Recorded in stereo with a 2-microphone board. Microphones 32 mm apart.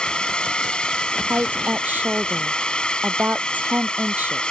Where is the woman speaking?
60° right (ahead or behind).